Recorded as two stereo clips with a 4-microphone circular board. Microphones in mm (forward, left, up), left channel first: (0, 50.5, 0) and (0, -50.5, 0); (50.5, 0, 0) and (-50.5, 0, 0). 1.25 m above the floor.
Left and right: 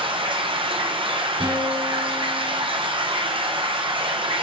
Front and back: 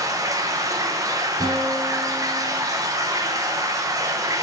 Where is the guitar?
125° right, 2.5 m.